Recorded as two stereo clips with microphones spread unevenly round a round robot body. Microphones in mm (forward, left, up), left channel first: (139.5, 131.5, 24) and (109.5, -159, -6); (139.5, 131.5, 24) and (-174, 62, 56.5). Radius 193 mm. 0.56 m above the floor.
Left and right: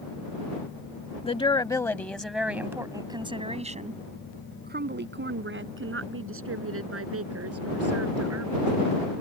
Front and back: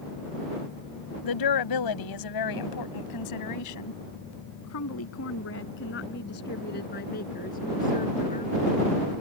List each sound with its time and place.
1.2 s a woman speaking: 15° left; by 8.7 s 60° right